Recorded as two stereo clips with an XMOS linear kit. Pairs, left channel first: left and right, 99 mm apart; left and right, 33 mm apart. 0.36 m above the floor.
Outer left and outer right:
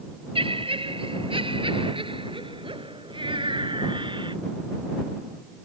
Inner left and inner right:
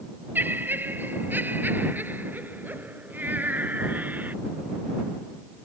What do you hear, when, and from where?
0.3 s laughter: 65° right (ahead or behind); by 4.4 s 55° right (ahead or behind)